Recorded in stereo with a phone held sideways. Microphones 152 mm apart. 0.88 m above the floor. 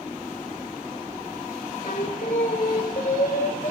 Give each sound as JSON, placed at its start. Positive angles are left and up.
{"t": 1.8, "sound": "singing", "side_deg": 60, "distance_m": 1.3}